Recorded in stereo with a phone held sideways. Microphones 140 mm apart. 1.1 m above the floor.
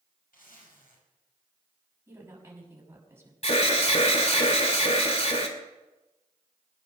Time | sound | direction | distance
0.3 | a zipper | 85° left | 5 m
2.1 | a woman speaking | 15° right (ahead or behind) | 6 m
3.4 | an alarm | 50° left (ahead or behind) | 2.5 m